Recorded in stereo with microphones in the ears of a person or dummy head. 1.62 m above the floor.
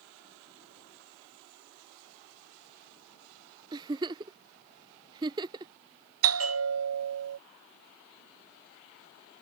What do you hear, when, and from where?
3.7 s a giggle: 20° right (ahead or behind)
6.2 s a bell: 80° right